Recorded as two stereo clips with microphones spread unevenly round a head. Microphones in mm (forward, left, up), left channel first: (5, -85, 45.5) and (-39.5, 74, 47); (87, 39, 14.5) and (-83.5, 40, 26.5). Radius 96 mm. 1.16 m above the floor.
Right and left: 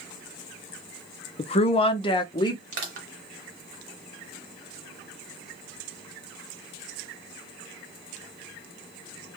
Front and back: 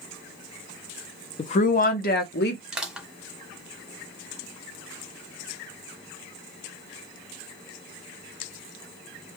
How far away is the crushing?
About 1.2 m.